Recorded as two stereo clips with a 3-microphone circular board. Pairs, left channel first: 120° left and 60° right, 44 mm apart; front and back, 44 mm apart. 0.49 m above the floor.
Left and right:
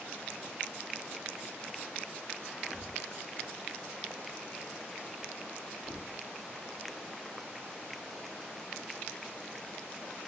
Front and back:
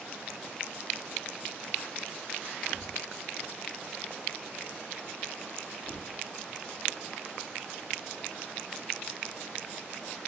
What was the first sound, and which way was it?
A thud, 75° right.